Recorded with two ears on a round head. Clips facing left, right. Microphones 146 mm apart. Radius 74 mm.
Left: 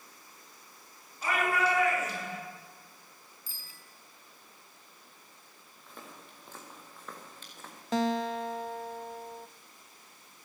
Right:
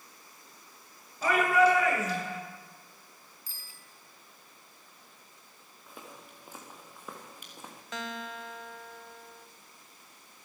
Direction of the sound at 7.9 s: 30° left (ahead or behind).